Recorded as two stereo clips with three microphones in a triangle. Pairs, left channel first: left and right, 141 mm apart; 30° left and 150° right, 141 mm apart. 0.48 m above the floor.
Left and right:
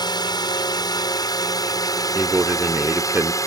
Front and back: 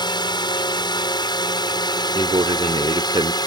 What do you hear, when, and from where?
0.0 s a drone: 55° left; by 3.5 s 50° left
2.1 s a man speaking: 155° right